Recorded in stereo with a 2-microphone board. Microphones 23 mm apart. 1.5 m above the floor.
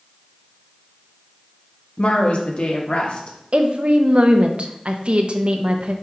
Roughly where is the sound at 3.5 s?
Right.